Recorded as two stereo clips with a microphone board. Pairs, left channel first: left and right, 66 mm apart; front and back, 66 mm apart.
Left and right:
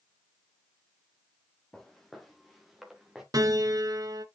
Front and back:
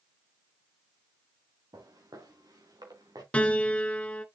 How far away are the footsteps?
About 4 m.